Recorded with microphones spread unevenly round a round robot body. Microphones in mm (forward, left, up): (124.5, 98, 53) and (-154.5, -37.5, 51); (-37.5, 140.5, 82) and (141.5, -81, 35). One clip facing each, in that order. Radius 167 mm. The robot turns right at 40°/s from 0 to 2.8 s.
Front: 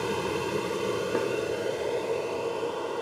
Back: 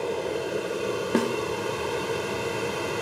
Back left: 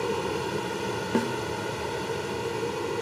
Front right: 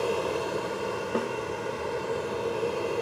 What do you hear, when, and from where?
0.0 s an aircraft: 75° left; by 3.0 s 175° right
1.1 s a snare drum: 175° right; by 1.4 s 165° right